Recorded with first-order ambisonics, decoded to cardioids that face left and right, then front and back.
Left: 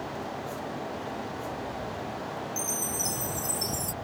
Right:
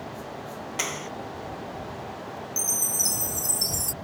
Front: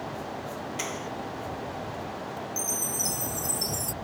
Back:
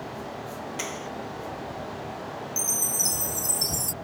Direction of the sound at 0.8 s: 95° right.